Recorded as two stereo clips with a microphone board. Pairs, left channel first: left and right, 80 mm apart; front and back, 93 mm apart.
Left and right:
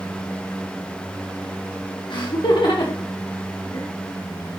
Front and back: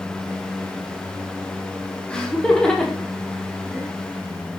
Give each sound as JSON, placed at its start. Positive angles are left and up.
{"t": 2.1, "sound": "laughter", "azimuth_deg": 80, "distance_m": 1.7}